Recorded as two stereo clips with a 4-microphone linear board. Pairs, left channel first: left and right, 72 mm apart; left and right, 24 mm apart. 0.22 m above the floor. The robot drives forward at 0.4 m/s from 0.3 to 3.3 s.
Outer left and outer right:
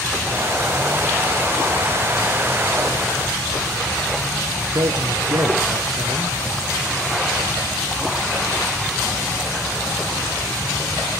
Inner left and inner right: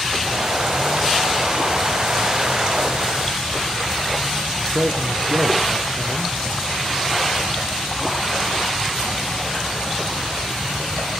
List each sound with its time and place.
4.6 s a man speaking: 70° right (ahead or behind), 3.5 m